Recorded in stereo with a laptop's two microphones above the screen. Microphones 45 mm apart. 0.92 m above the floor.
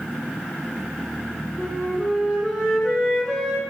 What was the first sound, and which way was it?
A flute, centre (ahead or behind).